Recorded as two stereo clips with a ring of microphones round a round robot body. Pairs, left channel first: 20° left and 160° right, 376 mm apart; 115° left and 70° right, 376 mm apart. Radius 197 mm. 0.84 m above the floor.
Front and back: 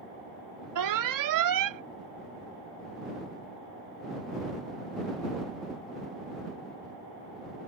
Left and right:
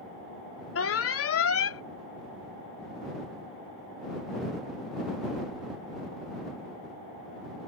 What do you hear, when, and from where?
0.8 s an alarm: 165° left